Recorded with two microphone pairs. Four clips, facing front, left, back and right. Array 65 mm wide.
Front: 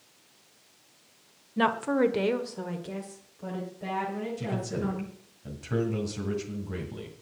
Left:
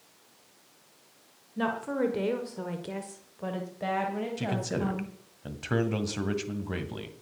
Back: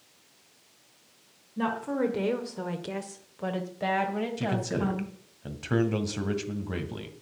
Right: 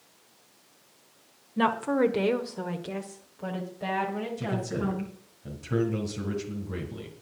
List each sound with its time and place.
1.6 s a woman speaking: 30° right, 1.3 m; by 5.1 s 165° left, 3 m
4.4 s a man speaking: 125° left, 1.8 m